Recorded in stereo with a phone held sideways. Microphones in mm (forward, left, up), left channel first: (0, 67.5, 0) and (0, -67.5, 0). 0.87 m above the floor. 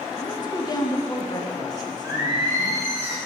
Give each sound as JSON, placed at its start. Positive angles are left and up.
{"t": 0.2, "sound": "a woman speaking", "side_deg": 30, "distance_m": 0.6}
{"t": 2.0, "sound": "singing", "side_deg": -25, "distance_m": 1.3}